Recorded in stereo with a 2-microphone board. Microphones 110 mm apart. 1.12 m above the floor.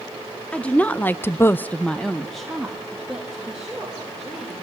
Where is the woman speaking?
10° left (ahead or behind), 1.4 m; by 4.5 s centre (ahead or behind), 4.5 m.